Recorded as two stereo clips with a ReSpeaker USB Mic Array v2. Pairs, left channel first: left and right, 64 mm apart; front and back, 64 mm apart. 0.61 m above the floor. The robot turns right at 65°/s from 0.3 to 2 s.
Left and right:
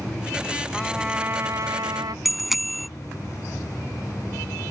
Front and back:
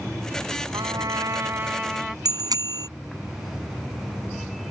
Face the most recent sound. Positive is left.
turn(degrees=180)